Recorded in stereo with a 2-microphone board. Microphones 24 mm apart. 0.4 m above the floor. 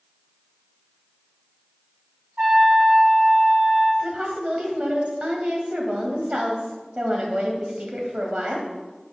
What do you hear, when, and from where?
2.4 s a trumpet: 65° right (ahead or behind), 3 m
4.0 s a woman speaking: 55° right (ahead or behind), 2.0 m